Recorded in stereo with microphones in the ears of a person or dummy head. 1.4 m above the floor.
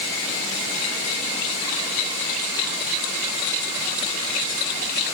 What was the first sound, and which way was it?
Only background noise.